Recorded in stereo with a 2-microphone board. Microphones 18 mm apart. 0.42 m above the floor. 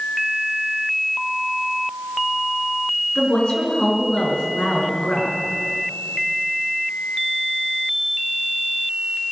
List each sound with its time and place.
3.1 s a woman speaking: 55° left (ahead or behind), 5 m